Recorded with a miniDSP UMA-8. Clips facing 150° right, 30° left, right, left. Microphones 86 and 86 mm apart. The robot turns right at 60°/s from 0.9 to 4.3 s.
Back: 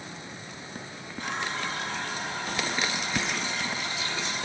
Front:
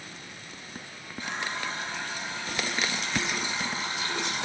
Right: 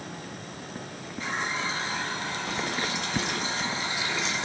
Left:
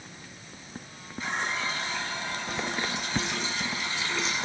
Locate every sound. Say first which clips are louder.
1.2 s a running tap: back 1 dB, even; 175° left, 2 m; by 4.5 s straight ahead, 2 m